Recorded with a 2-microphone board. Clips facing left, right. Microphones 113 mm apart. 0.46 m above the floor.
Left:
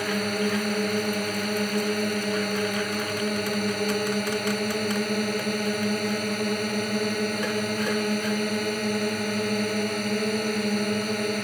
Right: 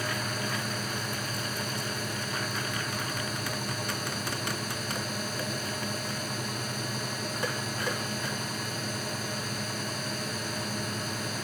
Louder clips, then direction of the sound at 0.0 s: Left 8 dB; 60° left (ahead or behind).